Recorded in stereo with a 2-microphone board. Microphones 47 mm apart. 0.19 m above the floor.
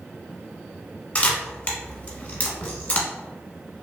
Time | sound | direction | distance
1.1 | a camera shutter | 30° left (ahead or behind) | 0.8 m